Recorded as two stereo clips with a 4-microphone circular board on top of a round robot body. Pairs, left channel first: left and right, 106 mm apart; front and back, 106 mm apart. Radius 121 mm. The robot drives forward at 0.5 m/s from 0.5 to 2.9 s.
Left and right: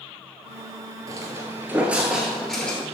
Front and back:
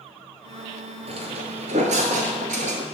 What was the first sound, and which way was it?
Footsteps, 150° right.